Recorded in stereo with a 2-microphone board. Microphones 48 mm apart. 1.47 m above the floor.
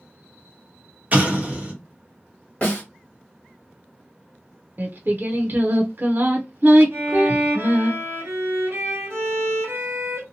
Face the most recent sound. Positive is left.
turn(degrees=-55)  # may be behind; listen again after turning